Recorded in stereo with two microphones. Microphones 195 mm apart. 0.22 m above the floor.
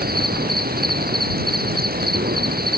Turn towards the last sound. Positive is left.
turn(degrees=-50)  # may be behind; listen again after turning